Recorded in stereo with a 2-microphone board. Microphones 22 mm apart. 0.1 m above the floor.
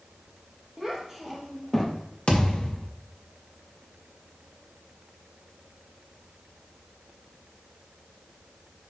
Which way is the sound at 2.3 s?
45° left (ahead or behind).